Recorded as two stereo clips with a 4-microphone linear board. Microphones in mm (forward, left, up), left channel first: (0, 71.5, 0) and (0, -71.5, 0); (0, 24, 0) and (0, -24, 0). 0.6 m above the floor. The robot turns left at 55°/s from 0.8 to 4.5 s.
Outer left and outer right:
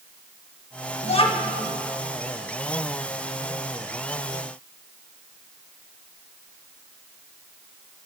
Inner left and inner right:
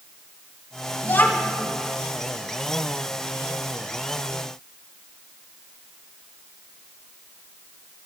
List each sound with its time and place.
1.0 s a child speaking: 50° left (ahead or behind), 0.8 m; by 1.6 s 25° left (ahead or behind), 0.8 m